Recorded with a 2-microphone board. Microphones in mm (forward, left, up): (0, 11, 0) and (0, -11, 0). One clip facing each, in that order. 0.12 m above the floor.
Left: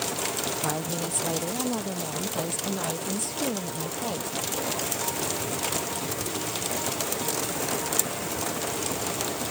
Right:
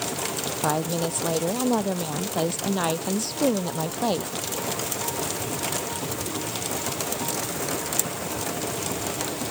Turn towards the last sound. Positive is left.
turn(degrees=-55)  # may be behind; listen again after turning